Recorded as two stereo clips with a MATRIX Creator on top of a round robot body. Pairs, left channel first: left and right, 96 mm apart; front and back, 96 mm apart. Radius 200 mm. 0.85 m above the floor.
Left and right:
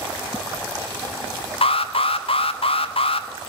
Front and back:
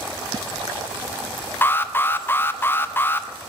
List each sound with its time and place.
1.6 s an alarm: 70° left, 0.6 m